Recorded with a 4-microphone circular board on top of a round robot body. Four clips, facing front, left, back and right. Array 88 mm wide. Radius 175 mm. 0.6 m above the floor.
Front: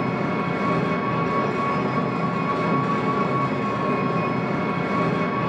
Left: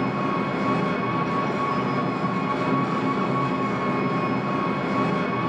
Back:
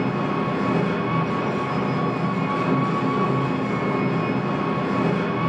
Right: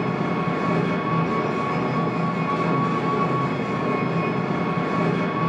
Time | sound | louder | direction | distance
0.0 | an engine running | even, back 1 dB | 5° right | 2.5 m